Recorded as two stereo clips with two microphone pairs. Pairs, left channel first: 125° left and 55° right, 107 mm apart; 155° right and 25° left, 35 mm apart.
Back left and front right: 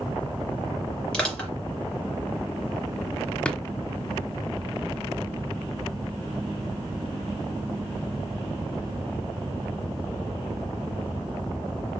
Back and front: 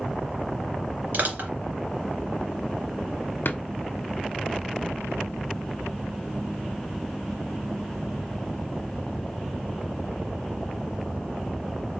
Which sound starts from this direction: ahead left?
Crushing, at 1.1 s.